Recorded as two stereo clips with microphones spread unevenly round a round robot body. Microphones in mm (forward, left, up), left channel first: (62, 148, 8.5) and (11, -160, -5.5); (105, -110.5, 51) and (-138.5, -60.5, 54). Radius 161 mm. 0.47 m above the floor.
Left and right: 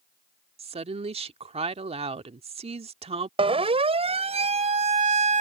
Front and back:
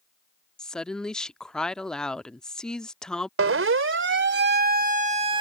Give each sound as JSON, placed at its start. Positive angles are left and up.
{"t": 0.6, "sound": "a woman speaking", "azimuth_deg": -90}
{"t": 3.4, "sound": "a siren", "azimuth_deg": -170}